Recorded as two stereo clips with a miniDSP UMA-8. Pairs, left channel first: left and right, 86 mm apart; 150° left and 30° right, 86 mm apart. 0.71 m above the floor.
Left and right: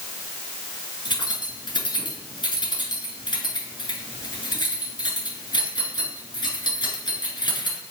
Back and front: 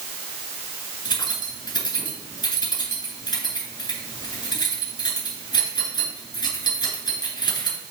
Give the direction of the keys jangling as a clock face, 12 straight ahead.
8 o'clock.